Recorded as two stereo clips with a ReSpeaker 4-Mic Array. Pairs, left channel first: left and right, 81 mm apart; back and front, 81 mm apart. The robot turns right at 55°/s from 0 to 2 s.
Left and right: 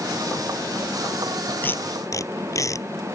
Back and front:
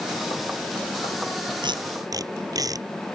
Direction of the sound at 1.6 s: 20° left.